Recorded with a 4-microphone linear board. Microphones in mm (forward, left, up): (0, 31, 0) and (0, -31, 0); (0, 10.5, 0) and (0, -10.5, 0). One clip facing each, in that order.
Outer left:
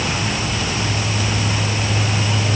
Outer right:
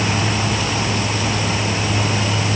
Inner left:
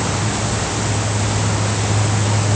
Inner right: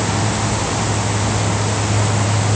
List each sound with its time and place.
Only background noise.